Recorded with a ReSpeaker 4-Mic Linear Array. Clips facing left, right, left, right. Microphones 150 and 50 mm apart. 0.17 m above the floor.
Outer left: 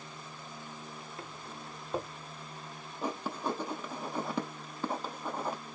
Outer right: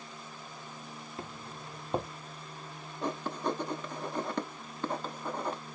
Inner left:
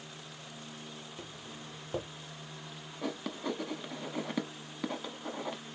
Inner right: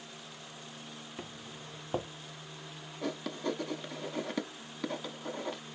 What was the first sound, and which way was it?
Footsteps, 25° right (ahead or behind).